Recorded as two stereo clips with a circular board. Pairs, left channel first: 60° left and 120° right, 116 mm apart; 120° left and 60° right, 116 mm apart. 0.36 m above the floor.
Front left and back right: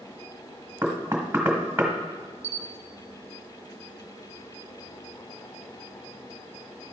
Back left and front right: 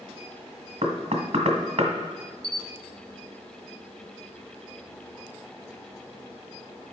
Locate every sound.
0.8 s knocking: 50° right, 1.4 m
2.4 s a camera shutter: 40° left, 0.6 m